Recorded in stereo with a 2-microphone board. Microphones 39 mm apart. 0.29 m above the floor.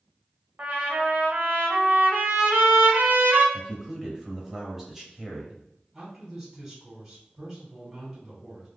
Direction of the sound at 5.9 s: 15° right (ahead or behind).